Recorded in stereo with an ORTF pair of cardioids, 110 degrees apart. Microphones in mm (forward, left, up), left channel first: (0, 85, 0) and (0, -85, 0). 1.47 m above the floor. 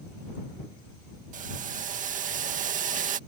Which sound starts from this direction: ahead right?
Boiling, at 1.3 s.